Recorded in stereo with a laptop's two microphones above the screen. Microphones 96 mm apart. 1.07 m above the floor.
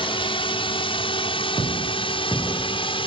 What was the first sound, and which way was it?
A drone, 70° left (ahead or behind).